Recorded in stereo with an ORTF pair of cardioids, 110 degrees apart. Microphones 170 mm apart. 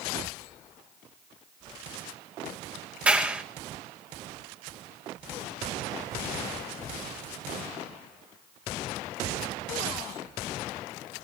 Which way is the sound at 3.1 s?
10° right.